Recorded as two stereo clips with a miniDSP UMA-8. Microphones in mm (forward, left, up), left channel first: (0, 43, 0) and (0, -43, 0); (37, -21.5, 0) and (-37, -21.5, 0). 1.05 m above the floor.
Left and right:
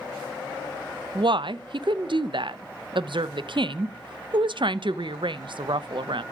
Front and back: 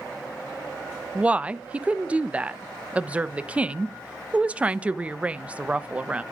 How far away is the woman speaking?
About 0.5 m.